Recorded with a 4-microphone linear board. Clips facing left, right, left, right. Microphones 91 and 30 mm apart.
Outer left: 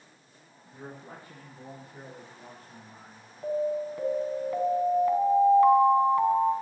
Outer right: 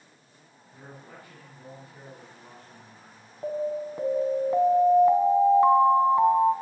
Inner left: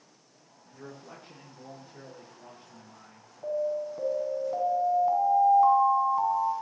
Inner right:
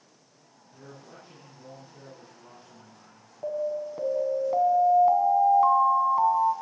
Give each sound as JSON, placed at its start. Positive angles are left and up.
{"t": 0.7, "sound": "a man speaking", "side_deg": 35, "distance_m": 8.0}
{"t": 3.4, "sound": "an alarm", "side_deg": -25, "distance_m": 1.8}